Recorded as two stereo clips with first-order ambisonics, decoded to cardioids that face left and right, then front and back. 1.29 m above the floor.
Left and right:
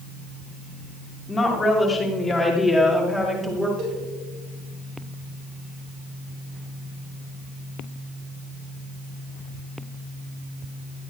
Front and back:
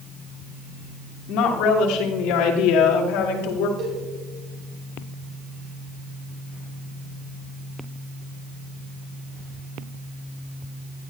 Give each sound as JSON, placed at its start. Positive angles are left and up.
{"t": 1.3, "sound": "a woman speaking", "azimuth_deg": 20, "distance_m": 3.0}
{"t": 3.8, "sound": "a cowbell", "azimuth_deg": -130, "distance_m": 6.0}